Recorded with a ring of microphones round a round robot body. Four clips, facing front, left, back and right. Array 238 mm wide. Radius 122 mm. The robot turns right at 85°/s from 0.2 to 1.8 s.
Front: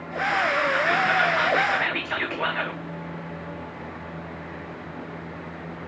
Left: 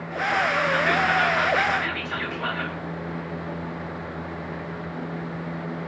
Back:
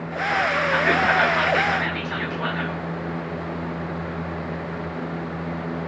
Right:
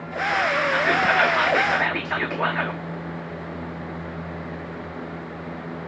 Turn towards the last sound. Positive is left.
turn(degrees=-80)